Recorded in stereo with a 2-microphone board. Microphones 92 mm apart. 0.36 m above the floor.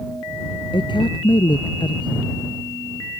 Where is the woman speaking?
60° left (ahead or behind).